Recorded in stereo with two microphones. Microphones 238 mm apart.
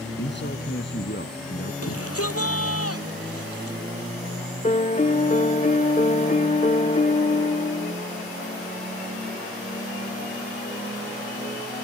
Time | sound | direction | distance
0.2 | a man speaking | 50° left (ahead or behind) | ?
1.8 | a shout | 75° left (ahead or behind) | ?
4.6 | a piano | 30° left (ahead or behind) | ?